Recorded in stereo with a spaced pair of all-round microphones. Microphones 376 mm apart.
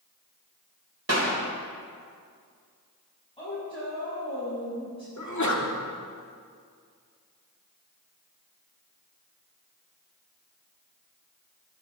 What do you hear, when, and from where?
1.1 s a clap: 45° right (ahead or behind), 3.5 m
3.4 s a woman speaking: 15° left (ahead or behind), 7 m
5.2 s a sneeze: 50° left (ahead or behind), 2.5 m